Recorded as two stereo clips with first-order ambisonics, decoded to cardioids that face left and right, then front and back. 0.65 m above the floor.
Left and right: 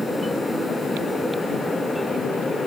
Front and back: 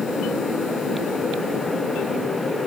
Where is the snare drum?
No snare drum in this recording.